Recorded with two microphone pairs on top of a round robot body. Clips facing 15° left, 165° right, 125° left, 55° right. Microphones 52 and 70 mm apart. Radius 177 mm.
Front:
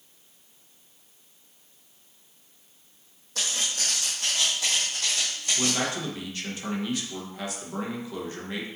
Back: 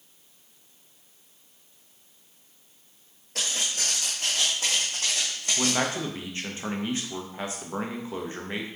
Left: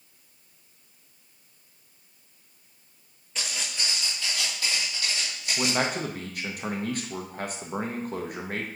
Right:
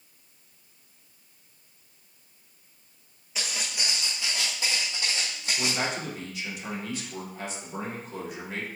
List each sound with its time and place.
3.4 s footsteps: 135° right, 1.2 m; by 5.8 s 115° right, 3 m
5.6 s a man speaking: 130° left, 1.4 m